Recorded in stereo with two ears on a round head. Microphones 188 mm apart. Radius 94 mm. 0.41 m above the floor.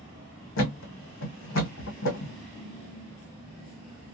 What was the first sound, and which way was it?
A thud, 65° left (ahead or behind).